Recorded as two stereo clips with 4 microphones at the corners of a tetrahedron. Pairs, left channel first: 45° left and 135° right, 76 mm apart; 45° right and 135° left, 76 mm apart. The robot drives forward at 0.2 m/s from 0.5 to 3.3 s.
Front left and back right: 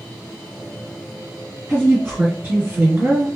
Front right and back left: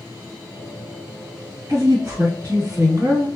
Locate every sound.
1.7 s a woman speaking: 160° left, 1.9 m; by 3.4 s 165° left, 2 m